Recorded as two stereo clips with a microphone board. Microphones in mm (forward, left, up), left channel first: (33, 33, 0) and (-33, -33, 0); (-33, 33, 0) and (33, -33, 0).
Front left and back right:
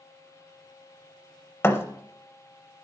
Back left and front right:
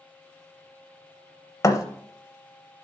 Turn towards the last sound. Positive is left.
turn(degrees=100)